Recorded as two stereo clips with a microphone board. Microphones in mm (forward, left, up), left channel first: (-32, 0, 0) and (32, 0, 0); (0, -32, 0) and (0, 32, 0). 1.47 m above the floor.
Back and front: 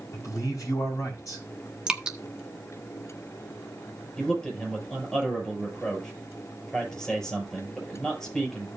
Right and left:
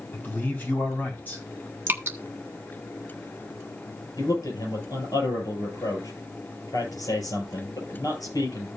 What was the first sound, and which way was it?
A man speaking, 150° right.